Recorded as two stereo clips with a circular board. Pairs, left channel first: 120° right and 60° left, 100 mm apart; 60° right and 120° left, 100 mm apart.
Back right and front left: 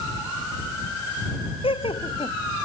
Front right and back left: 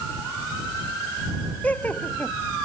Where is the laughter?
135° right.